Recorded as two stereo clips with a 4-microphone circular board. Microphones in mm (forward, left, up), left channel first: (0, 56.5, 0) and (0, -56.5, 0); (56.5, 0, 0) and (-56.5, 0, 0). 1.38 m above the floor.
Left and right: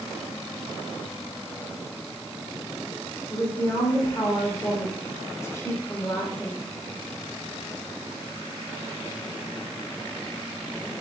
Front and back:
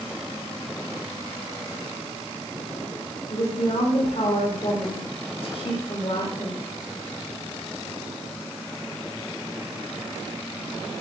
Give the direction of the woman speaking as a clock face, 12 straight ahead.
11 o'clock.